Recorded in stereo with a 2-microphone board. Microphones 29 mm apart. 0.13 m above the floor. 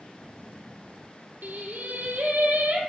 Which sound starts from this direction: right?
Singing, at 1.4 s.